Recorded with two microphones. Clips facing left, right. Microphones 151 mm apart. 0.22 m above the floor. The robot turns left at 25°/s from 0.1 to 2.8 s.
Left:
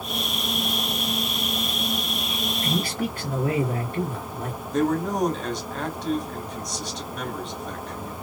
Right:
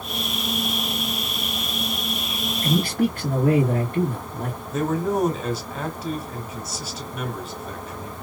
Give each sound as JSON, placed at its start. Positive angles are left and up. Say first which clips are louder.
{"t": 2.6, "sound": "a man speaking", "louder": "right 7 dB", "side_deg": -55, "distance_m": 1.8}
{"t": 4.7, "sound": "a man speaking", "louder": "even", "side_deg": -5, "distance_m": 1.3}